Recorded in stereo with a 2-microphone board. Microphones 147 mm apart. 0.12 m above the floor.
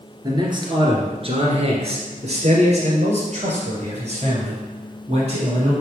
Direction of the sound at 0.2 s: 30° right (ahead or behind).